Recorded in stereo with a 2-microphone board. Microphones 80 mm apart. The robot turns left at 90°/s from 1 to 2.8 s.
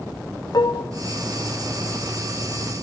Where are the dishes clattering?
55° left (ahead or behind), 0.6 m.